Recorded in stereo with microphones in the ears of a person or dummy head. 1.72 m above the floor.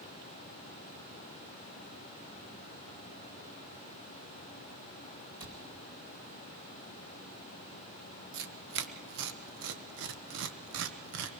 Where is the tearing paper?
65° right (ahead or behind), 1.2 m.